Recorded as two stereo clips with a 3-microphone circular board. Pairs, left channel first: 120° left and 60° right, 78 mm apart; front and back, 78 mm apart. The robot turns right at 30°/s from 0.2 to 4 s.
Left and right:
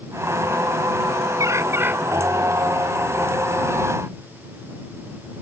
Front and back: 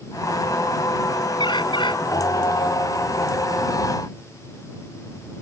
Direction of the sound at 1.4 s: 15° right.